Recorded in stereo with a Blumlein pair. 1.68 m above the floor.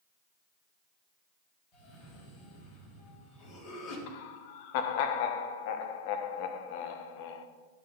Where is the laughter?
50° left, 0.8 m.